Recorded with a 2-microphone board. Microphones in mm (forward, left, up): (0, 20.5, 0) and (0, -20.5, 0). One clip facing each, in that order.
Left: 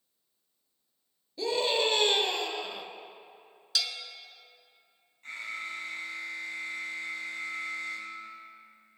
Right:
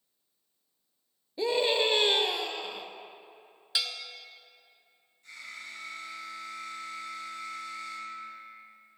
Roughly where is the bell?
Right.